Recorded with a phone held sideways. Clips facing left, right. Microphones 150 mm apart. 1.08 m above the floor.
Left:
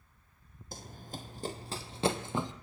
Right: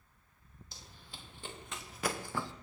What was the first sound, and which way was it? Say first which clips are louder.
Running footsteps: left 12 dB; 50° left (ahead or behind).